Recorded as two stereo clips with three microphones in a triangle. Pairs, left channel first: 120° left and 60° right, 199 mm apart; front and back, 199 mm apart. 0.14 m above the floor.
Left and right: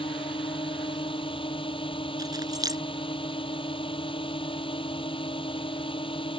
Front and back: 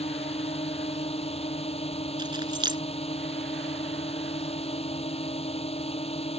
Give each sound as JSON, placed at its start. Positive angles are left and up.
{"t": 0.0, "sound": "a drone", "azimuth_deg": 55}
{"t": 2.2, "sound": "keys jangling", "azimuth_deg": -120}